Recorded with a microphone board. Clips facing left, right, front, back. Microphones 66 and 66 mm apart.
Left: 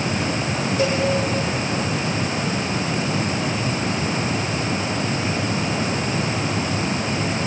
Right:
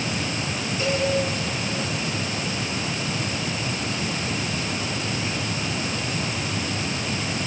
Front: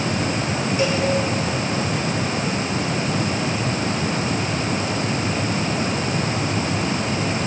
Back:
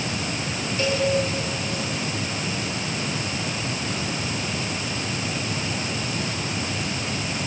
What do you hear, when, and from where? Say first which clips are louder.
0.8 s a cowbell: left 3 dB, front 1 dB; 75° left, 8 m